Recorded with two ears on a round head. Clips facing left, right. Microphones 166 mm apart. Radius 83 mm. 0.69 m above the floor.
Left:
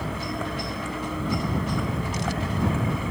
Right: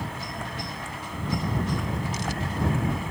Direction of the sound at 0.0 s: 65° left (ahead or behind).